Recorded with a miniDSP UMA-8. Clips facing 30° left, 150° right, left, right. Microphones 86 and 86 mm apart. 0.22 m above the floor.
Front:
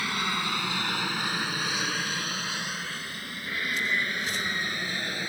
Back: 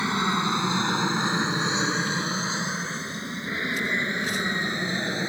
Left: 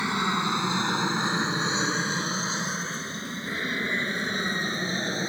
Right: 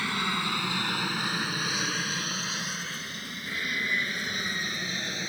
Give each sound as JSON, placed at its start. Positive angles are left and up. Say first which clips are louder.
{"t": 0.0, "sound": "an aircraft", "louder": "back 5 dB, left 4 dB", "azimuth_deg": 150}